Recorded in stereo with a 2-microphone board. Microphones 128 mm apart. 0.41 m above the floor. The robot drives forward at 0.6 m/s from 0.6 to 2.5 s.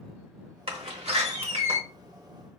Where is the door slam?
50° right (ahead or behind), 1.3 m.